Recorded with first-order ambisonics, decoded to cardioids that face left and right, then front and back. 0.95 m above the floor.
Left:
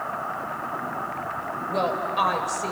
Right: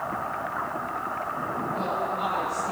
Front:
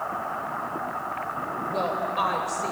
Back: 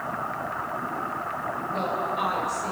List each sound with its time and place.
1.7 s a woman speaking: 65° left, 3.5 m